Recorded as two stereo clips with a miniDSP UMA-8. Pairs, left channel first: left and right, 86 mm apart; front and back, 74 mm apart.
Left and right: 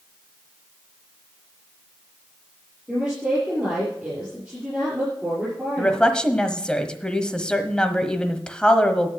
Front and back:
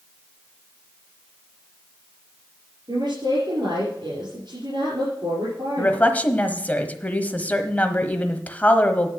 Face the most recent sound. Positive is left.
turn(degrees=25)